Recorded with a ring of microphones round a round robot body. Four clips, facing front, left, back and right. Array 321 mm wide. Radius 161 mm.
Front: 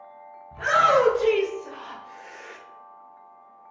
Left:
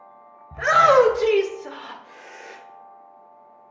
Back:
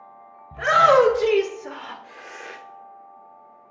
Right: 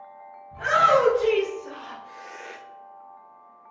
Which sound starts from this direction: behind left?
A shout, at 0.5 s.